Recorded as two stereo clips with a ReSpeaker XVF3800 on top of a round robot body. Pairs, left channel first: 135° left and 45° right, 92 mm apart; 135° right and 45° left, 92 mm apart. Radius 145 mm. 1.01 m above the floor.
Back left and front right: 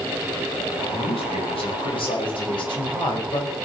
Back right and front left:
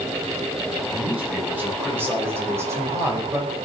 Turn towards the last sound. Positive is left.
turn(degrees=100)